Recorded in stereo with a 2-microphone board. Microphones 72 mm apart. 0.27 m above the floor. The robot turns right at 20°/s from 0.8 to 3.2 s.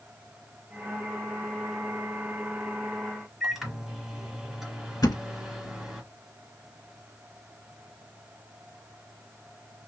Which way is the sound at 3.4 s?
5° right (ahead or behind).